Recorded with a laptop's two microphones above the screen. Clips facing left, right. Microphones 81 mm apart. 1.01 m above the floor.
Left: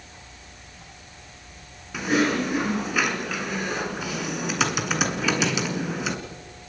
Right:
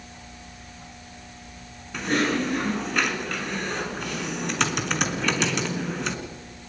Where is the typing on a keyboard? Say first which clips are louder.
Left 2 dB; 5° left (ahead or behind), 3.5 m.